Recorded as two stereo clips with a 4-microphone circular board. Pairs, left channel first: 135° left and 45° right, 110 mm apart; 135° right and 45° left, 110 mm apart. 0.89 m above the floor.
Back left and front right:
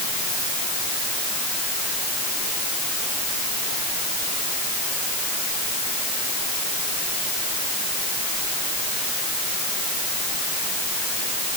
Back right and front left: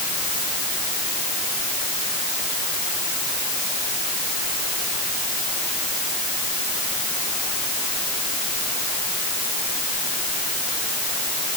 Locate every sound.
Only background noise.